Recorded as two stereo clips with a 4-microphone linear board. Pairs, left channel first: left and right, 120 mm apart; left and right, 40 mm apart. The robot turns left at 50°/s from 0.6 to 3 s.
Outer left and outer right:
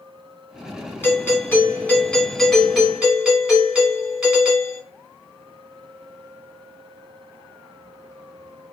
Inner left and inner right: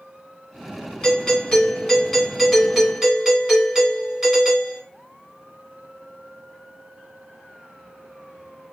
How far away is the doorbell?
About 1.6 m.